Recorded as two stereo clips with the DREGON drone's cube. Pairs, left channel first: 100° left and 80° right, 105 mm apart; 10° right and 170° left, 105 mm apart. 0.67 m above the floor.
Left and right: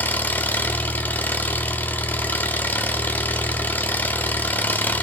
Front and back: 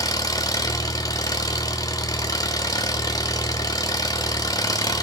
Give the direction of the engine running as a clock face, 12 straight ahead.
11 o'clock.